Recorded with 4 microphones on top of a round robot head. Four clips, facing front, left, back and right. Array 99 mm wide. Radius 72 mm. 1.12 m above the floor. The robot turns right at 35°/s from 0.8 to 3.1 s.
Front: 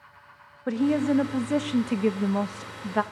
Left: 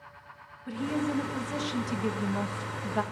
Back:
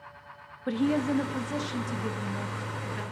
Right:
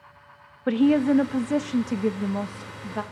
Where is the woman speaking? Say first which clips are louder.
Right 11 dB, front 3 dB; 75° right, 1.6 m; by 3.0 s 5° left, 1.6 m.